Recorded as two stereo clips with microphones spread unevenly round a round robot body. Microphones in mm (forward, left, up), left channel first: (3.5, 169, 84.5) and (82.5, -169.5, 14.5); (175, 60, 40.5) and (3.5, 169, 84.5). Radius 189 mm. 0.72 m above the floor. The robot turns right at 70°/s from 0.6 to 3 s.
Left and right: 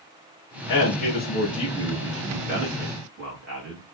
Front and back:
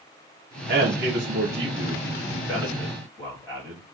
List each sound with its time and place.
0.7 s a man speaking: 115° left, 1.2 m; by 3.8 s 80° right, 1.2 m